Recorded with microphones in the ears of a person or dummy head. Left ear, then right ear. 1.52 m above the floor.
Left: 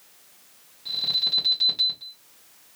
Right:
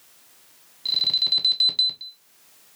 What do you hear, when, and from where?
0.8 s an alarm: 50° right (ahead or behind), 1.6 m